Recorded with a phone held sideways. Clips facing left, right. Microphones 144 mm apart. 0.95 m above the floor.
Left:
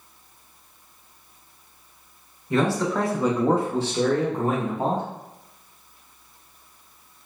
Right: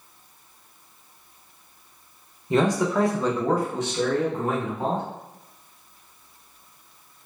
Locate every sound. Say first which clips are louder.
2.5 s a man speaking: right 1 dB; 20° right (ahead or behind), 0.6 m; by 5.0 s 40° left (ahead or behind), 1.4 m